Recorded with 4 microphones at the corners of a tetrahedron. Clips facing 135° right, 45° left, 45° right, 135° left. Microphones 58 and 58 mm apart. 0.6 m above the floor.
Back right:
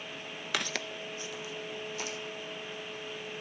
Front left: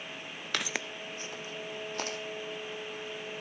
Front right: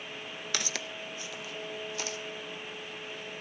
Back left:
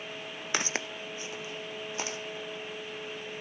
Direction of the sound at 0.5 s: 140° left.